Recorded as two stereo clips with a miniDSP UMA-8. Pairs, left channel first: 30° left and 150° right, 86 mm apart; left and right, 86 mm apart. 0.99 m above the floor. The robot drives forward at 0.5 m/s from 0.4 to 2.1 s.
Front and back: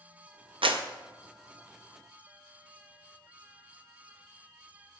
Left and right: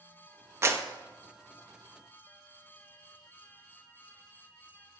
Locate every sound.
0.6 s a clap: 150° right, 0.5 m; by 0.8 s 155° right, 0.6 m